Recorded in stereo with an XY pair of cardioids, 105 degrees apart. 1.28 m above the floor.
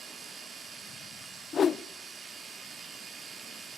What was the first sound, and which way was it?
A machine running, 60° right.